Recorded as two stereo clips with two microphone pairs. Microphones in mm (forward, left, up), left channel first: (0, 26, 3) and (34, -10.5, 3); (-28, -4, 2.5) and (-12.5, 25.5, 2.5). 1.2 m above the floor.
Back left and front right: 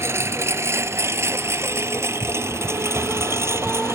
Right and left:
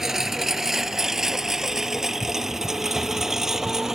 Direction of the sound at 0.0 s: 15° right.